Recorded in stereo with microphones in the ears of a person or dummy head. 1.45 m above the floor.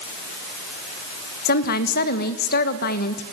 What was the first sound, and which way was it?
A woman speaking, 55° left (ahead or behind).